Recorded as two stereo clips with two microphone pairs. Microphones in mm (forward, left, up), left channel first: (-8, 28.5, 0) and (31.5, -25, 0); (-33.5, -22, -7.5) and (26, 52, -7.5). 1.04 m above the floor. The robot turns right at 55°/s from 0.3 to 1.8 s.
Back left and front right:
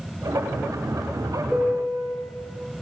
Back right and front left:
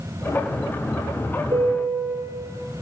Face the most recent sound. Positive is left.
turn(degrees=35)